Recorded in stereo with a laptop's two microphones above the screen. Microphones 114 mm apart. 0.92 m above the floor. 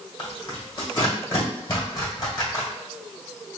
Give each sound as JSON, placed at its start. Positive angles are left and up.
{"t": 0.2, "sound": "tearing paper", "side_deg": 35, "distance_m": 1.6}